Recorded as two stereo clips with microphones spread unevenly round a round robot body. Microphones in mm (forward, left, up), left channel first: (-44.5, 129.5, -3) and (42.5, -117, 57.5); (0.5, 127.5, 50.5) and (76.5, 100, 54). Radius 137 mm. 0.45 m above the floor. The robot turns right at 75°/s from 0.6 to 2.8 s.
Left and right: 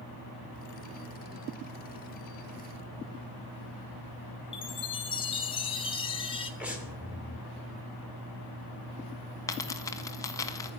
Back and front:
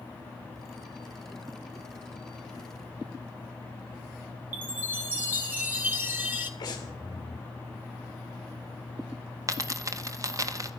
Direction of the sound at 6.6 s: 165° right.